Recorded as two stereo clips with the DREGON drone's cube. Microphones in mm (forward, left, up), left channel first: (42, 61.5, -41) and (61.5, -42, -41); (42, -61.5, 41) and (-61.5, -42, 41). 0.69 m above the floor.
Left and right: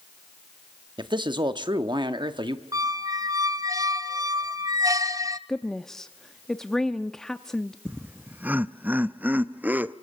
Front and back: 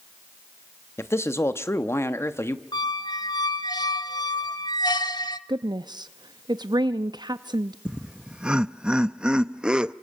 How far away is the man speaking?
About 1.1 m.